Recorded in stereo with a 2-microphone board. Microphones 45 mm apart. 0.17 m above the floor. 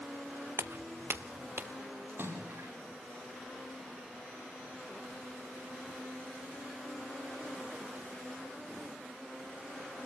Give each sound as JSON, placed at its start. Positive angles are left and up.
{"t": 0.6, "sound": "footsteps", "side_deg": -70, "distance_m": 0.7}
{"t": 2.1, "sound": "a splash", "side_deg": -55, "distance_m": 7.0}